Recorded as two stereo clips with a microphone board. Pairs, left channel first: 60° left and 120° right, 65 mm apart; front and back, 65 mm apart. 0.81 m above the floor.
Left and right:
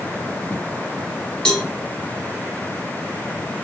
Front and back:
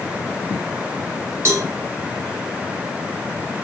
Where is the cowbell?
135° left, 0.7 m.